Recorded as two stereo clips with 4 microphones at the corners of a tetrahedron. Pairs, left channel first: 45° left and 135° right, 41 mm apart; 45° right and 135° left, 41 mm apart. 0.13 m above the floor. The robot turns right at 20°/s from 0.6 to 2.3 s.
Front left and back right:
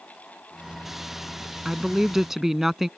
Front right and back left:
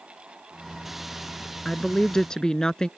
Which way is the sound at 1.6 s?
85° right.